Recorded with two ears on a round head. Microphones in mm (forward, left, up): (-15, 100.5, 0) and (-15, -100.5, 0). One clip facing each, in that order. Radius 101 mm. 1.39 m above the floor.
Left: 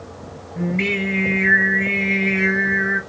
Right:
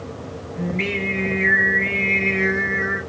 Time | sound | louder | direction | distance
0.6 | singing | left 3 dB | 55° left (ahead or behind) | 1.3 m